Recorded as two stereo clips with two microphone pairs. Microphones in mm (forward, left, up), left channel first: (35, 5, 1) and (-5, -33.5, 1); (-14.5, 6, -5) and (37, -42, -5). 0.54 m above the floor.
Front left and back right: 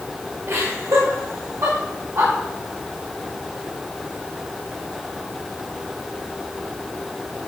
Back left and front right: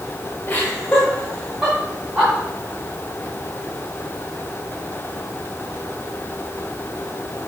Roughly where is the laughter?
Behind.